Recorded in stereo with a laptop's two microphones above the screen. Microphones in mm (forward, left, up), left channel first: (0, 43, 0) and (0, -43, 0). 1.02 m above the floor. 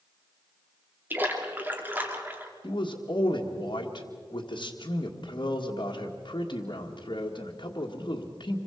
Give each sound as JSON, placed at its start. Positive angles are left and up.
{"t": 1.1, "sound": "a splash", "side_deg": -20, "distance_m": 3.0}
{"t": 2.6, "sound": "a man speaking", "side_deg": 60, "distance_m": 1.7}